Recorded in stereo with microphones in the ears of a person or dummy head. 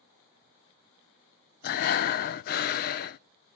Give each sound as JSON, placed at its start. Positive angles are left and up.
{"t": 1.6, "sound": "breathing", "side_deg": 45, "distance_m": 0.5}